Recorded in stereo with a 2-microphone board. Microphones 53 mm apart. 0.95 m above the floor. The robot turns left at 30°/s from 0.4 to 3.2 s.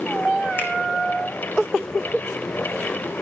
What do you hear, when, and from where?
0.6 s a finger snap: 50° left (ahead or behind), 3 m; by 0.7 s 45° left (ahead or behind), 3 m